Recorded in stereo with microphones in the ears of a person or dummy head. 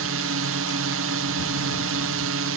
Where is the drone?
60° right (ahead or behind).